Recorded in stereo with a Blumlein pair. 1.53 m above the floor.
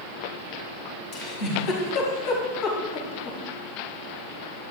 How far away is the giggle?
About 4 m.